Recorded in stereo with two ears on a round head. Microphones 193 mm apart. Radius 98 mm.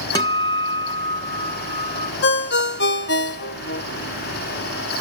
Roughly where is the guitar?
Centre.